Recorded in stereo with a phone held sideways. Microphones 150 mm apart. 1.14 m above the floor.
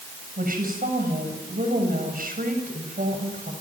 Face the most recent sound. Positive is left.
turn(degrees=-75)  # may be behind; listen again after turning